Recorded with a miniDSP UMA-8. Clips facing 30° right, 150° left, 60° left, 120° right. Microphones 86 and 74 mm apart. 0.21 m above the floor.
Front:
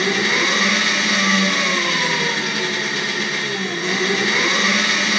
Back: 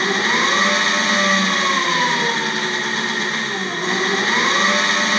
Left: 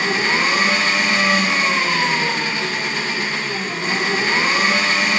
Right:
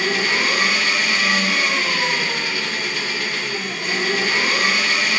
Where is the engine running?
120° left, 1.3 m.